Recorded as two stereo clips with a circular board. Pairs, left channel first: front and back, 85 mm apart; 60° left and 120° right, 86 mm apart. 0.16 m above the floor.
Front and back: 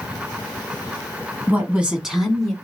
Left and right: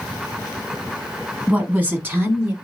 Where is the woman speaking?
170° right, 1.2 m; by 2.5 s 75° right, 1.4 m.